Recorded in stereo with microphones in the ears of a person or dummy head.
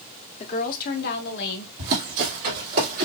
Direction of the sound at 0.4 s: 35° left (ahead or behind).